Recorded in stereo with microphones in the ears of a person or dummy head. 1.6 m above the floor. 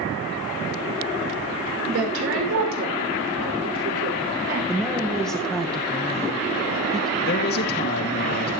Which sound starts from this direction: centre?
A woman speaking, at 4.7 s.